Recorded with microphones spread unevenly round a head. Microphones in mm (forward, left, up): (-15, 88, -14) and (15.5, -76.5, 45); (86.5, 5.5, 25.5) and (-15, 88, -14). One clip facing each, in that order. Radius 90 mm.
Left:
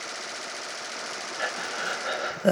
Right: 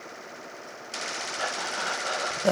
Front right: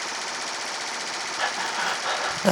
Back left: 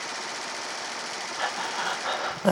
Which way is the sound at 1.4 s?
60° left.